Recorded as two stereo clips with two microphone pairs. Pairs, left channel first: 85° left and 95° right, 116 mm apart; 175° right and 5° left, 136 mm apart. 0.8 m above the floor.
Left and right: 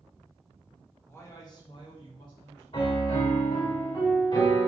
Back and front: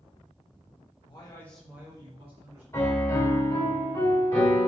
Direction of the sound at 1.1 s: 150° left.